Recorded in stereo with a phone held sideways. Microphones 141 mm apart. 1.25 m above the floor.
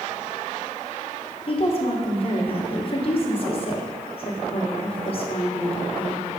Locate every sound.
1.5 s a woman speaking: 40° left (ahead or behind), 1.1 m